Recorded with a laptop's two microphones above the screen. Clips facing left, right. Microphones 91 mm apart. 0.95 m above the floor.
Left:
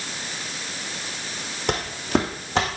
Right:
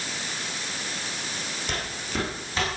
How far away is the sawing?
No sawing in this recording.